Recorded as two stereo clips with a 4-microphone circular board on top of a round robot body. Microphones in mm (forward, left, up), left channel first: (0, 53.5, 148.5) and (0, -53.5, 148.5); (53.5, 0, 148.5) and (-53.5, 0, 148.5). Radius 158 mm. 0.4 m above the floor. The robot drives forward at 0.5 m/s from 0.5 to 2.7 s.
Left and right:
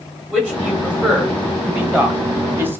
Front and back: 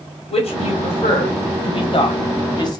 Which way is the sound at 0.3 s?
10° right.